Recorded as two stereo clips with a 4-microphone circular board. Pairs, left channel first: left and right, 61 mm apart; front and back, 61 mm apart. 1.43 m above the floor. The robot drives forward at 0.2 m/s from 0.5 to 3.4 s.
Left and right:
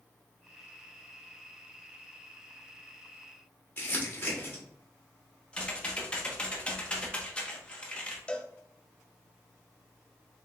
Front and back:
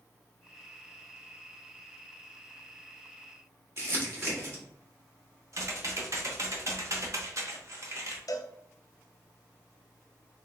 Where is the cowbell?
20° left, 0.5 m.